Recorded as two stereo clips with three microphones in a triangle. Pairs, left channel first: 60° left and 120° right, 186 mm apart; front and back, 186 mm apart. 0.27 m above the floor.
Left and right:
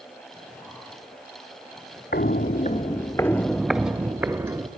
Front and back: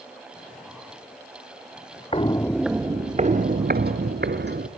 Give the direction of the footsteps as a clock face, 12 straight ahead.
10 o'clock.